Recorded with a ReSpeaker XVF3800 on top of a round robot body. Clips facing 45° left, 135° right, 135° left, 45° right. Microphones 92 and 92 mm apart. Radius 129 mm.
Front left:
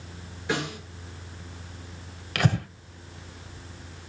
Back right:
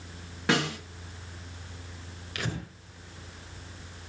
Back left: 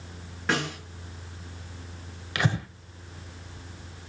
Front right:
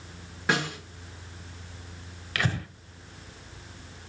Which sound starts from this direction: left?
Breathing, at 2.4 s.